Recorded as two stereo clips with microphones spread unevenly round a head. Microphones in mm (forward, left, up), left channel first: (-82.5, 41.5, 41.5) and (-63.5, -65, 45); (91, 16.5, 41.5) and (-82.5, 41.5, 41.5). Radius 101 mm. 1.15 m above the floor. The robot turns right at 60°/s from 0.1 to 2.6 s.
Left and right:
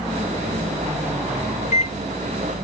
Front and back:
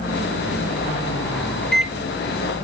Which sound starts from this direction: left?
A microwave, at 1.6 s.